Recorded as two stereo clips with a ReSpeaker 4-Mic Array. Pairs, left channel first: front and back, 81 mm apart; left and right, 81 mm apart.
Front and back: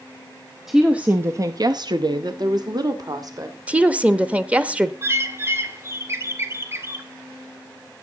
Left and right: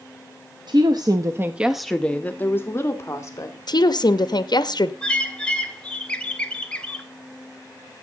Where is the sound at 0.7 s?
95° right, 0.9 m; by 3.6 s 140° left, 1.9 m.